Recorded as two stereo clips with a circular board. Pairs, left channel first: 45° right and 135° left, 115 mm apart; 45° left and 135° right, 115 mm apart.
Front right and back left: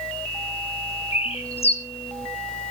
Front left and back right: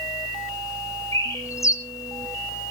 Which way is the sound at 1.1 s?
20° right.